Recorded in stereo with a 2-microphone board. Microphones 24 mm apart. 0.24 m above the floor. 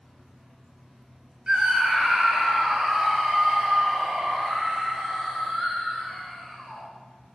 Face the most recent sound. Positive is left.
turn(degrees=5)  # may be behind; listen again after turning